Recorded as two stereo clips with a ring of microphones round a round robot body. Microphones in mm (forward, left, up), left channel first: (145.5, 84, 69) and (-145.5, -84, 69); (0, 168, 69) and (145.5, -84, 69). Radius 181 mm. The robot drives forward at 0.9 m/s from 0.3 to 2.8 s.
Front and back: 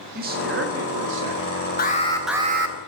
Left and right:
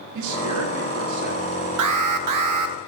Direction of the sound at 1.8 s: 35° right.